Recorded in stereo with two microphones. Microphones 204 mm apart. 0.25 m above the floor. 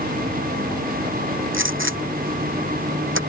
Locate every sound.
1.5 s a gunshot: 80° right